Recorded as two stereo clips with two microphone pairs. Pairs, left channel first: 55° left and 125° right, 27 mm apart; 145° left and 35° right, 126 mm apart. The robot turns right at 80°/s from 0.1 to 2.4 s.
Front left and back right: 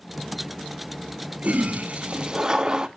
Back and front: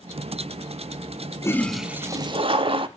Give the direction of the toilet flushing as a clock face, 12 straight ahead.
5 o'clock.